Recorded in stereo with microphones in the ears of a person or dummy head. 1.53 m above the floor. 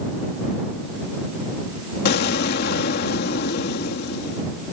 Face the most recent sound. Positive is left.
turn(degrees=50)  # may be behind; listen again after turning